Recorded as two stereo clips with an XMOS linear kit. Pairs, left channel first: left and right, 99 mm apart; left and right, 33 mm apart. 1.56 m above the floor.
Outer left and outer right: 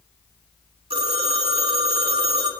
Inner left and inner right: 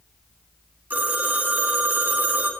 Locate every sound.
0.9 s a phone ringing: 75° right (ahead or behind), 2.5 m